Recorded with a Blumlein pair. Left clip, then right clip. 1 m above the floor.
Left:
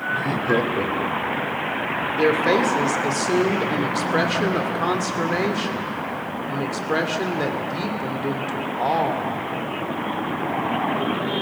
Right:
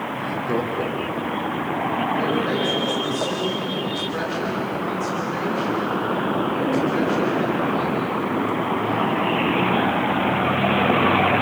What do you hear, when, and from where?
0.1 s laughter: 25° left, 1.2 m; by 1.6 s straight ahead, 2.5 m
2.1 s a woman speaking: 30° left, 2.5 m